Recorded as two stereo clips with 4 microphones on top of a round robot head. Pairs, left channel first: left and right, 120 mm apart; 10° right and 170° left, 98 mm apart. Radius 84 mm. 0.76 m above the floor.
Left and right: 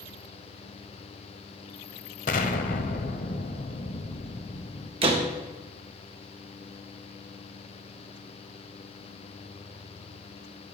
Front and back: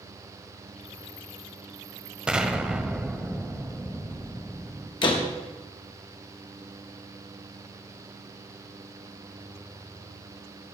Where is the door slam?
50° right, 1.3 m.